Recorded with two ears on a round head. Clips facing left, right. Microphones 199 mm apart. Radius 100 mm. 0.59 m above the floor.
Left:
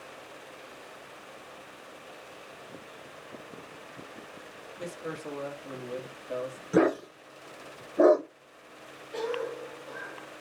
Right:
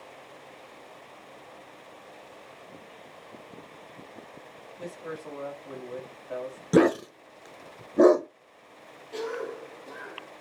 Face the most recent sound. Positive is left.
turn(degrees=-55)  # may be behind; listen again after turning